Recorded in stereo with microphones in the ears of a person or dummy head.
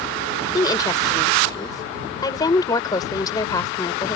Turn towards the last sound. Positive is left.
turn(degrees=25)  # may be behind; listen again after turning